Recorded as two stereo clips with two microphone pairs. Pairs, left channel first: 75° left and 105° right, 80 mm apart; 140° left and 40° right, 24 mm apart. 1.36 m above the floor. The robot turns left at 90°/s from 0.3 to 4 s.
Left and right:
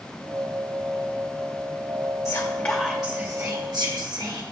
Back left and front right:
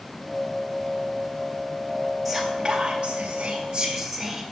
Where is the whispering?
45° left, 0.7 m; by 4.4 s 115° right, 0.7 m.